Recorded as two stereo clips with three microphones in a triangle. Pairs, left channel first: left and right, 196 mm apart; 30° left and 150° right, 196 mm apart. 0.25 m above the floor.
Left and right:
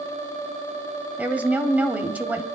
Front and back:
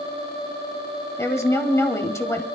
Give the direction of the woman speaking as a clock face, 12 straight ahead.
1 o'clock.